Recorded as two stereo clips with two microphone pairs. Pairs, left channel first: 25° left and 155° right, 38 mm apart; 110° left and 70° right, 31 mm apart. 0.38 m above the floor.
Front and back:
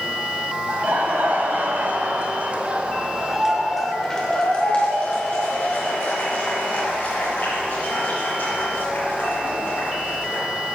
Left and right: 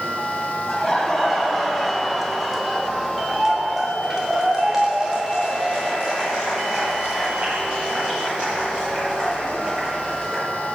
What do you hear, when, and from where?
0.7 s laughter: 165° right, 2 m; by 10.4 s straight ahead, 4.5 m